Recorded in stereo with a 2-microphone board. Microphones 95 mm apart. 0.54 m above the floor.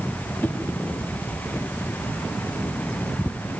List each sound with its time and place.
0.4 s a whoosh: 15° left (ahead or behind), 1.5 m